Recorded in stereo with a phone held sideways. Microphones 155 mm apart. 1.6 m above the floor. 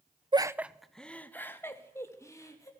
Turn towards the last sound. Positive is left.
turn(degrees=20)  # may be behind; listen again after turning